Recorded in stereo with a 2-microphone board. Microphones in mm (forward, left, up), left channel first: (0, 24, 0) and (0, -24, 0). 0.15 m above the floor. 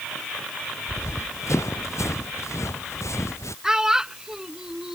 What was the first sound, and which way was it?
Running footsteps, 80° left.